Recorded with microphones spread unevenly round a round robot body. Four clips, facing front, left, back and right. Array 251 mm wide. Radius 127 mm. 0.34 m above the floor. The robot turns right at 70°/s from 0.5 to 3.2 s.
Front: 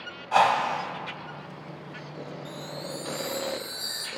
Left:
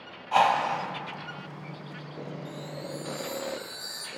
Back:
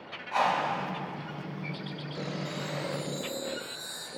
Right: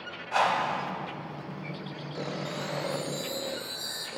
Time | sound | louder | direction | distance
0.3 | a whoosh | left 3 dB, front 5 dB | 25° left | 0.9 m
2.5 | a chime | right 5 dB, back 2 dB | 75° right | 0.9 m